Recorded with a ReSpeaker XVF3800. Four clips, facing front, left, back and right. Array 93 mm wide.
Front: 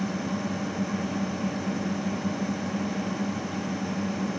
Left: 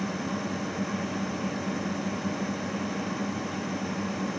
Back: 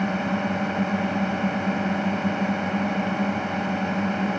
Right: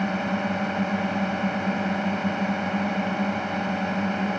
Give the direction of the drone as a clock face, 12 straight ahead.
5 o'clock.